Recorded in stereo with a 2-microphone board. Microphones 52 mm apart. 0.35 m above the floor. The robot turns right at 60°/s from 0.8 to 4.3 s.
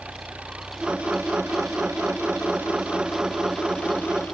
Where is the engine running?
150° right; by 4.3 s 60° left.